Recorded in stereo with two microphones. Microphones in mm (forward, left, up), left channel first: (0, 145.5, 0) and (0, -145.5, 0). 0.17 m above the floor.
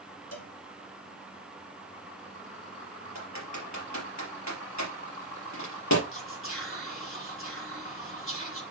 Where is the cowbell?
55° left (ahead or behind), 1.7 m.